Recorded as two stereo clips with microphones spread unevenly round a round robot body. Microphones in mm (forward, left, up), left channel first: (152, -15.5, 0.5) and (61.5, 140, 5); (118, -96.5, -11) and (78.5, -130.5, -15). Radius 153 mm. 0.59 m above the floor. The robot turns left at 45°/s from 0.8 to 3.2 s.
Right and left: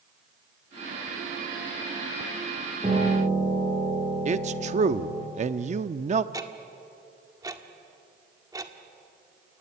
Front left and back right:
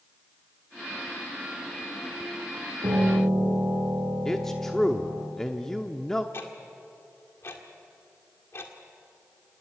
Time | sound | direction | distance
2.8 | a piano | 170° right | 9 m
4.2 | a man speaking | 120° left | 0.7 m
6.3 | ticking | 55° left | 1.8 m